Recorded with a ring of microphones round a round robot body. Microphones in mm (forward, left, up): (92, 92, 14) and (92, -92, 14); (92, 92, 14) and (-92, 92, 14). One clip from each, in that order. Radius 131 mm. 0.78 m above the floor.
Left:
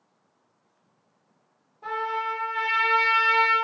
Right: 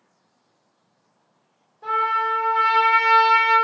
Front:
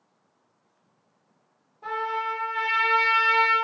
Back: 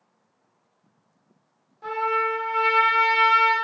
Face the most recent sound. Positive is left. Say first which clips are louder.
# right 7 dB, back 4 dB
turn(degrees=-170)